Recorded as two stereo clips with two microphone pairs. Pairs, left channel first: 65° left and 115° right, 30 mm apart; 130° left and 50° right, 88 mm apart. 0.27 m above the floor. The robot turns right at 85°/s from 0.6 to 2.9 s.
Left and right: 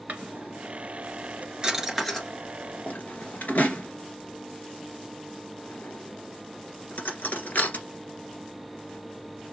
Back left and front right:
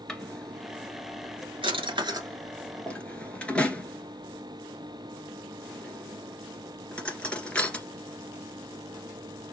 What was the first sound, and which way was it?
A drawer, 145° right.